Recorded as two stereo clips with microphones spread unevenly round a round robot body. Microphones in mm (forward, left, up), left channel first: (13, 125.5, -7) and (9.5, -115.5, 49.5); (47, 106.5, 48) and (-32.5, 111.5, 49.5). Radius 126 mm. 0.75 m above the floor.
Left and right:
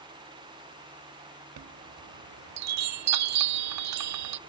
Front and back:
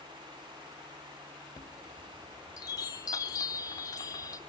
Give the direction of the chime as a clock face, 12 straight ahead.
2 o'clock.